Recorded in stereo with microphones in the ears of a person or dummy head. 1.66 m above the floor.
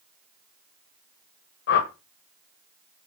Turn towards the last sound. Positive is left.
turn(degrees=65)  # may be behind; listen again after turning